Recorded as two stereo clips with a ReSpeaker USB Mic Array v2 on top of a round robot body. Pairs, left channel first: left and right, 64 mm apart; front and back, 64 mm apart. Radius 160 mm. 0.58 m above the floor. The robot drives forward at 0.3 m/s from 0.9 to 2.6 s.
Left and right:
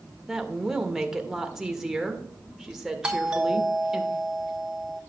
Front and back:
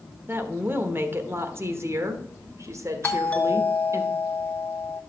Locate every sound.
0.3 s a woman speaking: 170° right, 1.3 m; by 4.0 s 175° right, 1.6 m
3.0 s a doorbell: 35° right, 1.5 m